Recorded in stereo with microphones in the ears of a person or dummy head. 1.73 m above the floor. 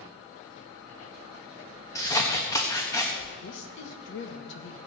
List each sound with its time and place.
1.9 s scissors: 15° left (ahead or behind), 1.3 m
3.4 s a woman speaking: 70° left (ahead or behind), 1.7 m